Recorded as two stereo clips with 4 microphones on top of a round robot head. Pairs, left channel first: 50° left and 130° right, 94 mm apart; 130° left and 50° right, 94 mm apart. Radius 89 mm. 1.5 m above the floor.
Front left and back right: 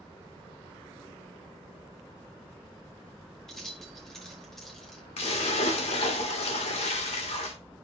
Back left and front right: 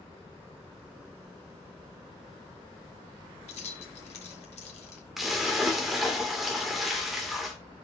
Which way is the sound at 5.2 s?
35° left.